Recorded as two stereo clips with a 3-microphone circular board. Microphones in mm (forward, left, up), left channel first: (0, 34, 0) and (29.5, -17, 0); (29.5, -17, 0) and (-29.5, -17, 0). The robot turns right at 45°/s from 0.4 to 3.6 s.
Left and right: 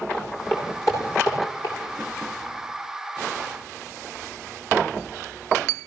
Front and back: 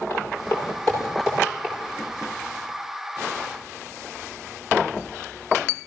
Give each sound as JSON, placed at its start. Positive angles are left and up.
{"t": 0.1, "sound": "footsteps", "azimuth_deg": 50, "distance_m": 9.5}